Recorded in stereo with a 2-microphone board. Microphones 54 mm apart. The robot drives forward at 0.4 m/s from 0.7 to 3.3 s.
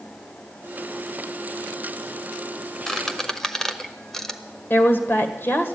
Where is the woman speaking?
45° left (ahead or behind), 1.8 m.